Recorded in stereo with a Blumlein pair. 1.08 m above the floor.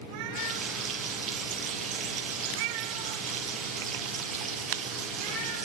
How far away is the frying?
About 6.5 m.